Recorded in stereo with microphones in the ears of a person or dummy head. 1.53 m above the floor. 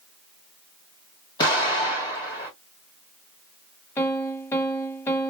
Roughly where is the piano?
Centre.